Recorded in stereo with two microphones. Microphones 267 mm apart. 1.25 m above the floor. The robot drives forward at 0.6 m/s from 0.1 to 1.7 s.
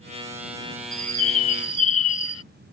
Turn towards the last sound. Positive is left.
turn(degrees=65)  # may be behind; listen again after turning